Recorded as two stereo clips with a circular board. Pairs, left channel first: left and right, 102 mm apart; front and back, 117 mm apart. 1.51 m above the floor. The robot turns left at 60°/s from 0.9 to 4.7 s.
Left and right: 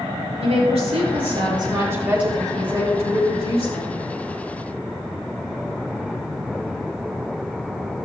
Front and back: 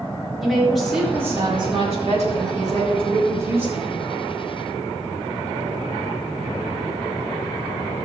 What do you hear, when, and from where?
0.4 s a woman speaking: 90° right, 4 m; by 4.0 s 85° left, 4 m